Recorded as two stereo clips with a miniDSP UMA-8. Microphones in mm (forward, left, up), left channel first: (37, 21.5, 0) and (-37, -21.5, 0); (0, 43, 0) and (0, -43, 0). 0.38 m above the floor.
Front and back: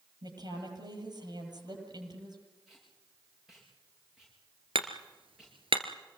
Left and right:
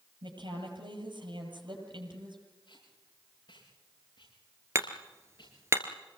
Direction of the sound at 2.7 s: 125° left.